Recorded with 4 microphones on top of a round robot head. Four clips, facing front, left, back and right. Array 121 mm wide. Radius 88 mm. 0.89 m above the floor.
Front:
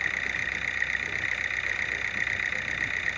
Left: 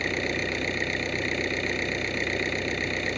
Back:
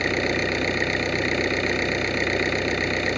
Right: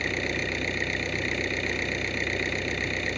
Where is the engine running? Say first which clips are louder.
Left 1 dB, back 10 dB; 175° left.